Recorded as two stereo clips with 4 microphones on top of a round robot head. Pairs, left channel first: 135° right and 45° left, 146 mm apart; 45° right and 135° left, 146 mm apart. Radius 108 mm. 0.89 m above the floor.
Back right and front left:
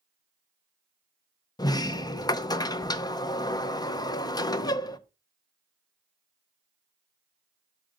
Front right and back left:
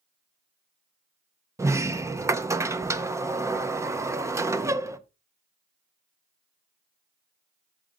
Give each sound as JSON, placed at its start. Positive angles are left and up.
{"t": 1.6, "sound": "a sliding door", "azimuth_deg": -175, "distance_m": 0.6}